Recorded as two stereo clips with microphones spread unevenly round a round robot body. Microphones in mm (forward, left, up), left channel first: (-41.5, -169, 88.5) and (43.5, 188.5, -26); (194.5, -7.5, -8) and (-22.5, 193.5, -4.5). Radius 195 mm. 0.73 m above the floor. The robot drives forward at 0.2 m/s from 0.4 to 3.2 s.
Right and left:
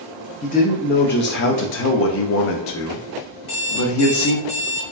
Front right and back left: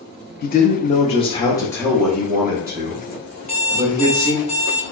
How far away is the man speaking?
About 0.5 m.